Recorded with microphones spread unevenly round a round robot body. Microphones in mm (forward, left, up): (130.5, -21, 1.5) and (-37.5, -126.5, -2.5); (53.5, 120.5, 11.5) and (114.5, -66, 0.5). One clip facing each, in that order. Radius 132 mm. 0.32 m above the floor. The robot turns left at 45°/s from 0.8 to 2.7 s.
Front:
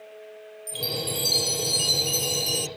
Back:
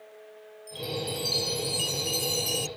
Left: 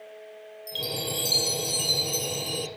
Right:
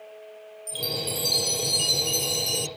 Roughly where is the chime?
Ahead left.